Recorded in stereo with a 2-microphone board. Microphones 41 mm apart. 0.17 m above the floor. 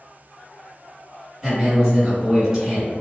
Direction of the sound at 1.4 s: 10° right (ahead or behind).